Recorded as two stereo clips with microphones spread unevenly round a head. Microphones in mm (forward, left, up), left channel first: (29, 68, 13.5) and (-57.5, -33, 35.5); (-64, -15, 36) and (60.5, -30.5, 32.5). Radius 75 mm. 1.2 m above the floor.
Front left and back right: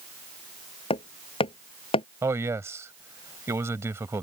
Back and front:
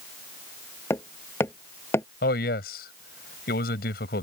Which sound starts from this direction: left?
Hammering, at 0.9 s.